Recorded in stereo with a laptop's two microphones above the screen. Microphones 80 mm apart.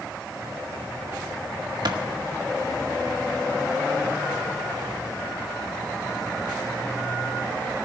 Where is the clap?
65° right (ahead or behind), 1.4 m.